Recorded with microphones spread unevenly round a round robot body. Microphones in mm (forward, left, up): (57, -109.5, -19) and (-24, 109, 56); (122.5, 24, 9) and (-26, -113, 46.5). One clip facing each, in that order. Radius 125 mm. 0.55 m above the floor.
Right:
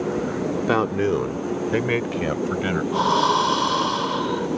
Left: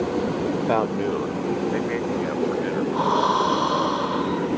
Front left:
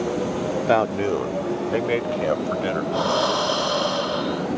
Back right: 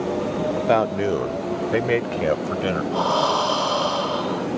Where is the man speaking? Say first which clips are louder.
Right 2 dB, even; 25° right; by 2.8 s 75° right.